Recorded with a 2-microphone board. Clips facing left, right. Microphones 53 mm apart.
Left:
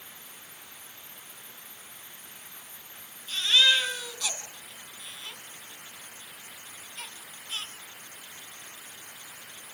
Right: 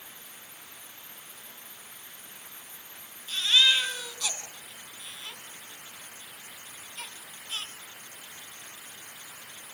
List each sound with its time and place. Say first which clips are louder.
3.3 s a baby crying: left 1 dB; centre (ahead or behind), 2.5 m